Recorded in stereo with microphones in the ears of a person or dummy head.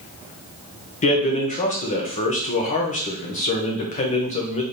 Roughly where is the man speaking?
Left.